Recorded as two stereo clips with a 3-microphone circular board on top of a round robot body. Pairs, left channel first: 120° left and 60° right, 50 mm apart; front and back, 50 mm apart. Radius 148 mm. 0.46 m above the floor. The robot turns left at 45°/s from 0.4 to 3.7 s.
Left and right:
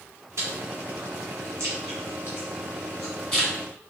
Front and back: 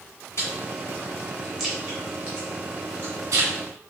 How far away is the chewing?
About 2.0 m.